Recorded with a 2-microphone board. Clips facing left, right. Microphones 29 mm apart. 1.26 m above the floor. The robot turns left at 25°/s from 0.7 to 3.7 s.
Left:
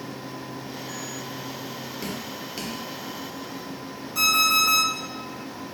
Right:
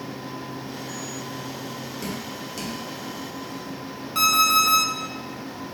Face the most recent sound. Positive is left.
turn(degrees=-55)  # may be behind; listen again after turning